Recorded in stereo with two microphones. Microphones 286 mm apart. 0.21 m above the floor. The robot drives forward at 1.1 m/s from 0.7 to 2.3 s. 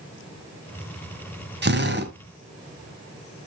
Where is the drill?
40° right (ahead or behind), 1.8 m; by 2.1 s 35° right (ahead or behind), 1.8 m.